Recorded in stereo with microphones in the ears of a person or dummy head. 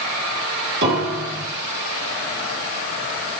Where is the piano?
55° right (ahead or behind), 1.6 m.